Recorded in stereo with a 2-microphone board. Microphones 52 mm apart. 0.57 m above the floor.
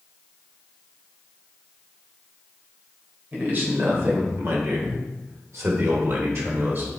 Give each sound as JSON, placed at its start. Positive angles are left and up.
{"t": 3.3, "sound": "a man speaking", "side_deg": -35, "distance_m": 3.0}